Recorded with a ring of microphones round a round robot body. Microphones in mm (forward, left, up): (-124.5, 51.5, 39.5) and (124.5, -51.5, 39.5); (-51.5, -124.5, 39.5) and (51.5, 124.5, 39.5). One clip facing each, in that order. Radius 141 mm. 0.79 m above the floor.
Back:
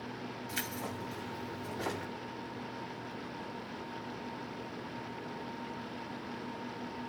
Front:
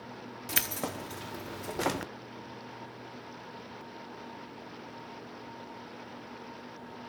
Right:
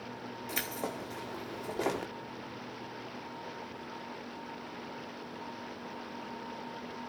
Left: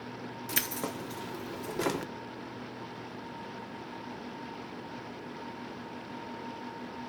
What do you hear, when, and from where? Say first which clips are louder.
0.5 s keys jangling: front 7 dB, left 1 dB; straight ahead, 0.8 m